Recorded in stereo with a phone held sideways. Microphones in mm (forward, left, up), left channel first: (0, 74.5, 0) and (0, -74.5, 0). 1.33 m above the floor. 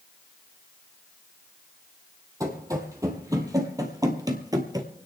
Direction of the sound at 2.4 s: 20° right (ahead or behind).